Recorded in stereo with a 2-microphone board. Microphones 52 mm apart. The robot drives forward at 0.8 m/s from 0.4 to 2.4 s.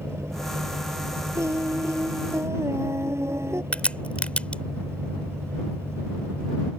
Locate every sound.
0.0 s an engine running: 60° right (ahead or behind); by 6.8 s 55° right (ahead or behind)
1.4 s singing: 65° right (ahead or behind); by 3.6 s 60° right (ahead or behind)
3.7 s a crack: 25° left (ahead or behind)